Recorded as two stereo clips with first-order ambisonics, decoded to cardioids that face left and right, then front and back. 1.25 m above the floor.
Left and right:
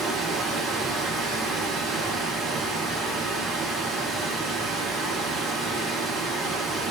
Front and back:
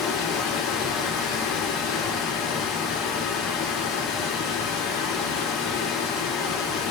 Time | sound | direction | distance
0.0 | running water | 30° right | 1.4 m